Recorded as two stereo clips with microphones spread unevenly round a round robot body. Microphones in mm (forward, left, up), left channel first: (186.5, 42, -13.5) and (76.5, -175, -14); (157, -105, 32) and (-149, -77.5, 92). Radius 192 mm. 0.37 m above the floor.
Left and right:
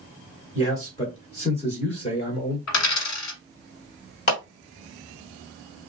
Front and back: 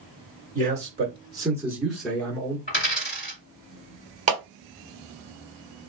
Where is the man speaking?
110° left, 1.7 m; by 2.6 s 30° left, 1.6 m.